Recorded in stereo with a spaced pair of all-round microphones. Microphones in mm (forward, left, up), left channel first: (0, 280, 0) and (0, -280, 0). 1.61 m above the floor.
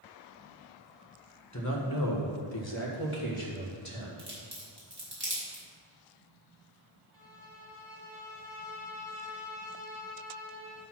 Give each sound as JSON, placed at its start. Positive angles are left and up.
{"t": 1.5, "sound": "a man speaking", "side_deg": 30, "distance_m": 1.4}
{"t": 4.2, "sound": "a crack", "side_deg": -45, "distance_m": 3.0}
{"t": 7.1, "sound": "a violin", "side_deg": -40, "distance_m": 2.5}